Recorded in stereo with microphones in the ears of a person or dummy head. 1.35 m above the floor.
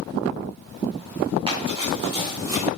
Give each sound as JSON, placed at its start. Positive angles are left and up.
{"t": 1.5, "sound": "running footsteps", "side_deg": -30, "distance_m": 5.5}